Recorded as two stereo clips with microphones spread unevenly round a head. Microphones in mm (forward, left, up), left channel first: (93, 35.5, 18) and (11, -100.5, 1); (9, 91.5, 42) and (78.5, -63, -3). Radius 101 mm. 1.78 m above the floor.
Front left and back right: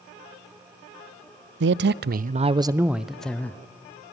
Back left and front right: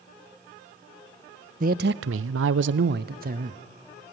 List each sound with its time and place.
1.6 s a man speaking: 115° right, 0.6 m; by 3.6 s 20° right, 0.9 m